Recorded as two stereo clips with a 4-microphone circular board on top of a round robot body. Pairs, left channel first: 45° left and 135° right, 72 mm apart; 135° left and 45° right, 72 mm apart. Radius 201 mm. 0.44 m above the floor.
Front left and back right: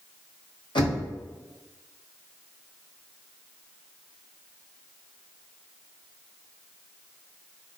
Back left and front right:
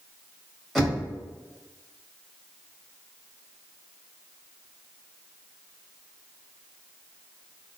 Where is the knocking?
45° left, 1.3 m.